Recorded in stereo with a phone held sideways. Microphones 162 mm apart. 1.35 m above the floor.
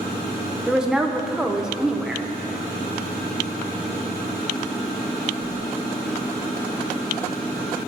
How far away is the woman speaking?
About 0.6 m.